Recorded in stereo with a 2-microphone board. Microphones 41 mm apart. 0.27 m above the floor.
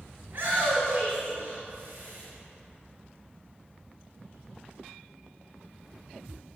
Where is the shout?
35° right (ahead or behind), 3 m.